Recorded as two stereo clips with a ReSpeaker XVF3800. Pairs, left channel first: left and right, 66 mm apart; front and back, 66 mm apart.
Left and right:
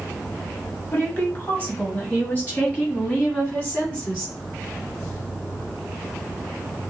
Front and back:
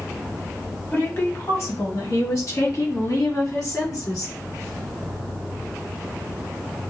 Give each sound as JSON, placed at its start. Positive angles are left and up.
{"t": 0.9, "sound": "a woman speaking", "azimuth_deg": 35, "distance_m": 1.9}